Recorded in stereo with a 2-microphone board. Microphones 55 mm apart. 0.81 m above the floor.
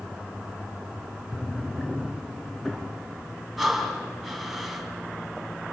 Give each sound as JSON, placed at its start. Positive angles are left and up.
{"t": 1.3, "sound": "a drawer", "side_deg": 10, "distance_m": 4.5}
{"t": 3.6, "sound": "breathing", "side_deg": 0, "distance_m": 3.5}